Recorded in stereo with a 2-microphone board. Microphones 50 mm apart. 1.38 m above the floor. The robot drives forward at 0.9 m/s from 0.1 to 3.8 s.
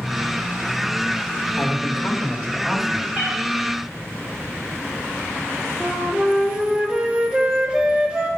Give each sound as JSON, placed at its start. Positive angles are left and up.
{"t": 1.6, "sound": "a man speaking", "side_deg": 25, "distance_m": 1.8}
{"t": 3.1, "sound": "a cat meowing", "side_deg": -15, "distance_m": 3.5}
{"t": 5.8, "sound": "a flute", "side_deg": -20, "distance_m": 1.3}